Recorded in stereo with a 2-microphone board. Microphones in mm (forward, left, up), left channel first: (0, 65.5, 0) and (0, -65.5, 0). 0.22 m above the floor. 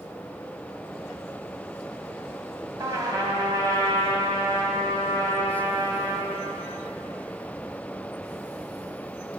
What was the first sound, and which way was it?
A trumpet, 25° right (ahead or behind).